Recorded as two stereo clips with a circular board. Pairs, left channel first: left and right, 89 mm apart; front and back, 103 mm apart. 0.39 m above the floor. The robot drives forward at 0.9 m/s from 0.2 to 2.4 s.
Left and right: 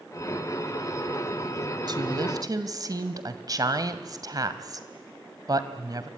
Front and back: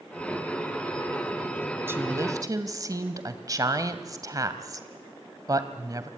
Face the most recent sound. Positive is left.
turn(degrees=-130)